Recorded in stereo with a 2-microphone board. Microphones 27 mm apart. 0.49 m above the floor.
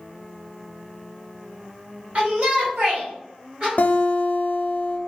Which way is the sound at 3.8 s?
80° left.